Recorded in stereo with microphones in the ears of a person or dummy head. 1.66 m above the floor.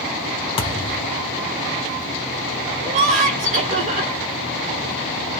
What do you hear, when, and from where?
0.6 s a thud: 25° left (ahead or behind), 1.0 m
2.8 s laughter: 40° right (ahead or behind), 1.4 m